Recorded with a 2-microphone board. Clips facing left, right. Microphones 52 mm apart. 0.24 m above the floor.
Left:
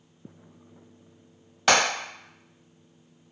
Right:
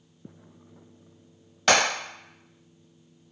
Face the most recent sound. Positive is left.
turn(degrees=5)  # may be behind; listen again after turning